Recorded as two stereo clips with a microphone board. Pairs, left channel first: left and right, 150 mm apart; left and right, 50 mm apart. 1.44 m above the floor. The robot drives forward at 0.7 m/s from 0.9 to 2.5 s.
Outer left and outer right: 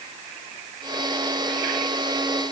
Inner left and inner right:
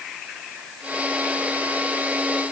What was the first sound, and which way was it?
Only background noise.